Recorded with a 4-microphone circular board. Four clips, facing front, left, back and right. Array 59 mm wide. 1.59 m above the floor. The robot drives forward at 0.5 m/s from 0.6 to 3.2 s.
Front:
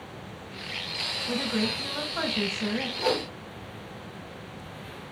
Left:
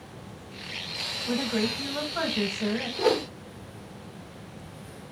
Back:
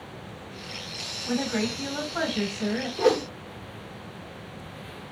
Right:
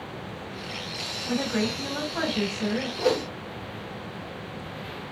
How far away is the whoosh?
About 0.9 m.